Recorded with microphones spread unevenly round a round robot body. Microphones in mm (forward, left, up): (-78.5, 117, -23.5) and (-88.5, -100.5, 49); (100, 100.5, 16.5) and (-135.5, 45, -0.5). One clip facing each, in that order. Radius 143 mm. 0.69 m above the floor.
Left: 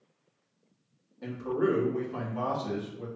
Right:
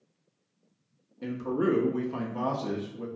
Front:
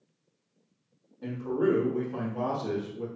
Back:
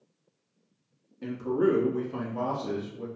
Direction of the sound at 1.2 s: 150° right.